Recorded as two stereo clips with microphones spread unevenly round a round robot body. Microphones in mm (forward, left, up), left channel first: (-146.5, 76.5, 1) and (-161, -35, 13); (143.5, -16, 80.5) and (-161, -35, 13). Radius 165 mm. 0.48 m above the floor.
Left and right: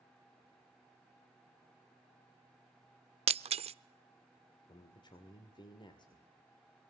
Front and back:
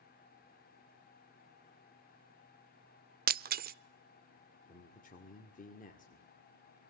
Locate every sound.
3.3 s breaking glass: 125° right, 0.5 m
4.7 s a man speaking: 70° left, 1.8 m